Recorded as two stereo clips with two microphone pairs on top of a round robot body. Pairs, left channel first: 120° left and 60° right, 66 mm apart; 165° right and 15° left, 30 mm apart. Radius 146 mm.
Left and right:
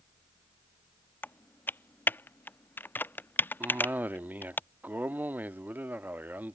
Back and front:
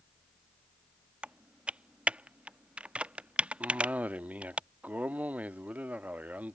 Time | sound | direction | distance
1.2 | typing on a keyboard | 60° left | ?
3.6 | a cough | 5° right | ?